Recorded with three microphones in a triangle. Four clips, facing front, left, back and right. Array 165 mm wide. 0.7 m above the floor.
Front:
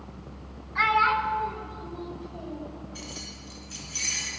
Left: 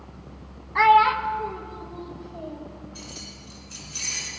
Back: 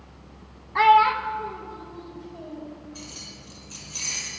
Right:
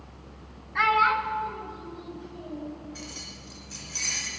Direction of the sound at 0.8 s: 155° left.